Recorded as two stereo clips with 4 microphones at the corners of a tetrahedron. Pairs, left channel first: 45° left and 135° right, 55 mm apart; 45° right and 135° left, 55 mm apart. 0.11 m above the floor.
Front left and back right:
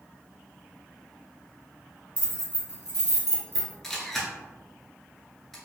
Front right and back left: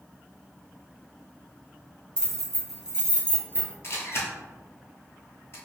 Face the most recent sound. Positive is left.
turn(degrees=-40)